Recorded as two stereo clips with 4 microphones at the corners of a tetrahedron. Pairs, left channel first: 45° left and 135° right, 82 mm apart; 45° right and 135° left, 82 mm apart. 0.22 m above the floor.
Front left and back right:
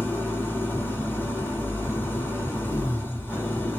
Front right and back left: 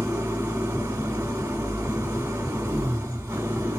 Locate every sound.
0.0 s an engine running: 95° left, 1.4 m